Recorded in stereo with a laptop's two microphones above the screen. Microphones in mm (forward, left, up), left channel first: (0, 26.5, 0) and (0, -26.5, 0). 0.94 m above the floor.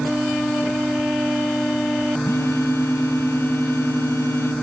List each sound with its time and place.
2.2 s a phone buzzing: 60° left (ahead or behind), 1.1 m